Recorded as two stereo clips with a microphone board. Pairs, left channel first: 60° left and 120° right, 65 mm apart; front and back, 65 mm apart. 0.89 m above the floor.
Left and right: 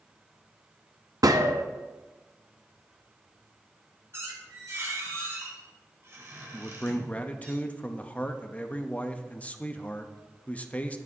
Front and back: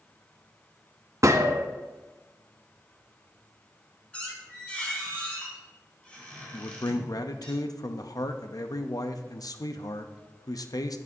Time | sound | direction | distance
1.2 | a gunshot | 140° right | 0.7 m
4.1 | a squeak | 70° right | 2.5 m
6.5 | a man speaking | 5° right | 0.7 m